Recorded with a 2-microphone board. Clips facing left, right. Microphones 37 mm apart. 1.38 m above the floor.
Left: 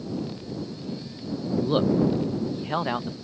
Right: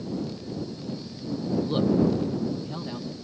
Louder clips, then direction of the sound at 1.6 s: Left 1 dB; 20° left (ahead or behind).